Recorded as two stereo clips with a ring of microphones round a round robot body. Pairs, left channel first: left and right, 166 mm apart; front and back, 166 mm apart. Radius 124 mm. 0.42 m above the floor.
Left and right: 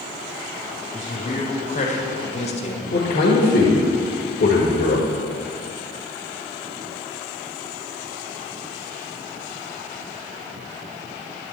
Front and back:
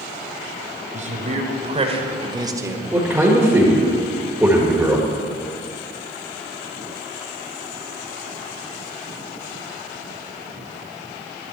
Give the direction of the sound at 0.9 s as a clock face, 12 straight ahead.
7 o'clock.